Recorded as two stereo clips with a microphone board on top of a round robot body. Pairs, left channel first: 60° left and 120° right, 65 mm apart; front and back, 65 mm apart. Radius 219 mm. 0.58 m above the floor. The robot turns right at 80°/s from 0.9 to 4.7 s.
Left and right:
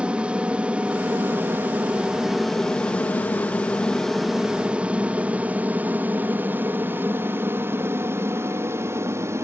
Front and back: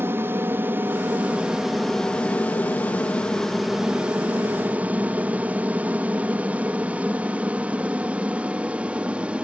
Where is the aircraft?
Straight behind; by 9.4 s 115° right.